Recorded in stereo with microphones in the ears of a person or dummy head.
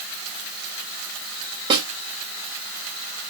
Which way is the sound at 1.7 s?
30° right (ahead or behind).